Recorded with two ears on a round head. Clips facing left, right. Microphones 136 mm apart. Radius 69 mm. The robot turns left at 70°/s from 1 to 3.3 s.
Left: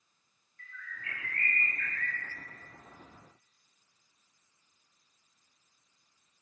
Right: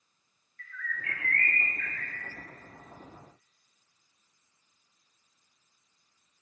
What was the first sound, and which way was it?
A bird, 20° left (ahead or behind).